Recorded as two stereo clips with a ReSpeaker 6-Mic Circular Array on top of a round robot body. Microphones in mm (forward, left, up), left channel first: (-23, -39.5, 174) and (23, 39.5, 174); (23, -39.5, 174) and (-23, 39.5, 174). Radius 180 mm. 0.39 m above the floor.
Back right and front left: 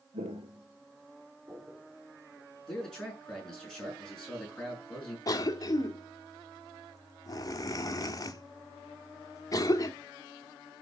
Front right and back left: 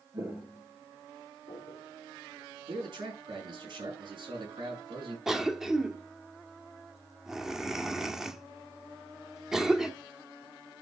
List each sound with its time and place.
0.1 s footsteps: 65° left, 0.6 m; by 2.5 s 10° right, 3.5 m
2.7 s a man speaking: 155° left, 6.5 m
5.3 s a cough: 155° right, 1.4 m